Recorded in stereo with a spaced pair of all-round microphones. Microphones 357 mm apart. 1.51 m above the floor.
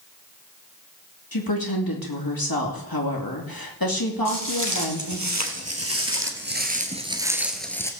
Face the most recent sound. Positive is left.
turn(degrees=10)  # may be behind; listen again after turning